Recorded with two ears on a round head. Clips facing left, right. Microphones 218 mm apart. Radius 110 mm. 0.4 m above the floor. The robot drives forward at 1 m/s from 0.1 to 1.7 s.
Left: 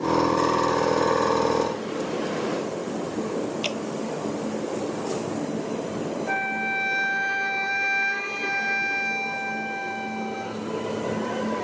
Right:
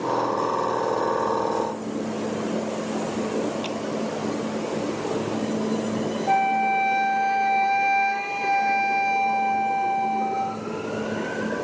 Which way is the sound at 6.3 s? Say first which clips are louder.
Right 6 dB; 20° left (ahead or behind).